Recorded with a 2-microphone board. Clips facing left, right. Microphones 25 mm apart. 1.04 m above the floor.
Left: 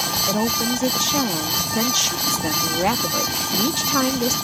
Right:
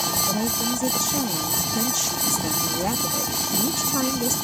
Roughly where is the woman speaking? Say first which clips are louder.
Left 4 dB; left.